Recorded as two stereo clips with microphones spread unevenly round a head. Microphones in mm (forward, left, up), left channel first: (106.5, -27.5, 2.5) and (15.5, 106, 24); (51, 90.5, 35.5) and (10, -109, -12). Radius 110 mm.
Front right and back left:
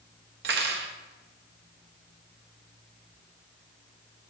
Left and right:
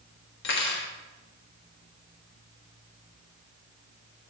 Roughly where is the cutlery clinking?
Behind left.